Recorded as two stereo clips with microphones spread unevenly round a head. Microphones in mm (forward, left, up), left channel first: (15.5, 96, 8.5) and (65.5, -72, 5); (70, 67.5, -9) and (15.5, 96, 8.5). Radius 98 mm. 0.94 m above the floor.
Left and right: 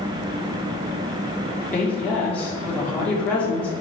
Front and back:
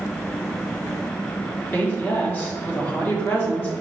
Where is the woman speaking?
25° left, 2.5 m.